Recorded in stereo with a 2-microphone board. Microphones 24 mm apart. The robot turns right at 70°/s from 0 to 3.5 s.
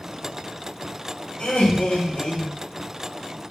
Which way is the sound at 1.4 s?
55° left.